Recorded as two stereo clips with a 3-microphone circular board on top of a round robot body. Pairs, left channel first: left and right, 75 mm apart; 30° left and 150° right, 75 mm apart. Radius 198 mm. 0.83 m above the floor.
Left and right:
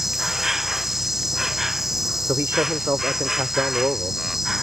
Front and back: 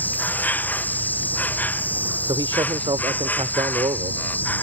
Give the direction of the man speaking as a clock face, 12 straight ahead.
5 o'clock.